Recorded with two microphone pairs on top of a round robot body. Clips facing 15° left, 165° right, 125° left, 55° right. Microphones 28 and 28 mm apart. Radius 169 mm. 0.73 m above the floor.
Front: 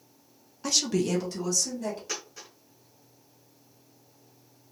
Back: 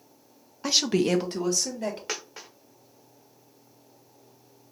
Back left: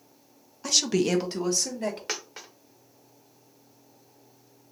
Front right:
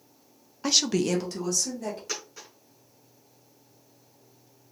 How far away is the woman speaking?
About 0.6 m.